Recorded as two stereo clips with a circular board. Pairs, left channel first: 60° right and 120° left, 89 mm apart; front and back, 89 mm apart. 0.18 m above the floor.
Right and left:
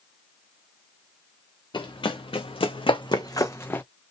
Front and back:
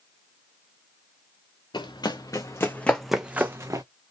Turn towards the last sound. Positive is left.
turn(degrees=-130)